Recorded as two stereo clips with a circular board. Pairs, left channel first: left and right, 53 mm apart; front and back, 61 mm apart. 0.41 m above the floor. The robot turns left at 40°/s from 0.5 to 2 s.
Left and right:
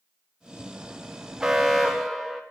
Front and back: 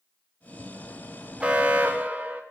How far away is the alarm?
About 0.6 m.